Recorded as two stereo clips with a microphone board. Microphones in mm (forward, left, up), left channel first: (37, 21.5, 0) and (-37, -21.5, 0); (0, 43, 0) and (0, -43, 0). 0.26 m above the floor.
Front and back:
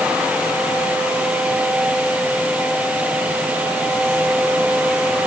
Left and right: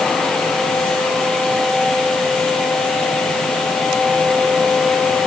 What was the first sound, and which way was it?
Only background noise.